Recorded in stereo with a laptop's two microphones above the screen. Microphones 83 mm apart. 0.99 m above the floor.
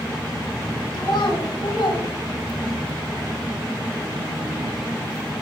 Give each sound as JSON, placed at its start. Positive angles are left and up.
{"t": 0.9, "sound": "a child speaking", "side_deg": 75, "distance_m": 4.0}